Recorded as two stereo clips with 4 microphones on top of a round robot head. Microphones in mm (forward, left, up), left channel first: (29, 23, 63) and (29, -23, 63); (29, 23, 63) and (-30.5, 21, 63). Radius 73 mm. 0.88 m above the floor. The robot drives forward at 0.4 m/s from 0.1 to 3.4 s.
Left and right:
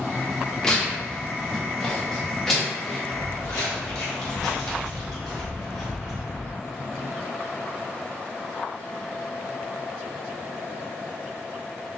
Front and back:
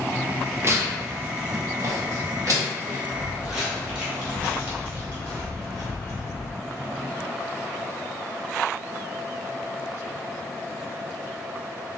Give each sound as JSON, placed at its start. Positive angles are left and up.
{"t": 0.6, "sound": "tearing paper", "azimuth_deg": 160, "distance_m": 1.1}
{"t": 3.1, "sound": "footsteps", "azimuth_deg": 100, "distance_m": 1.9}